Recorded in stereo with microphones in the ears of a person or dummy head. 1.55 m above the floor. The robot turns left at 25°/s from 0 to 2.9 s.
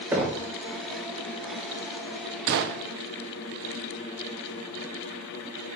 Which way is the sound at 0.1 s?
15° right (ahead or behind).